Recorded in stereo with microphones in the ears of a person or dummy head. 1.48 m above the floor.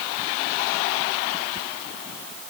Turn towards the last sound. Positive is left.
No sound to turn to.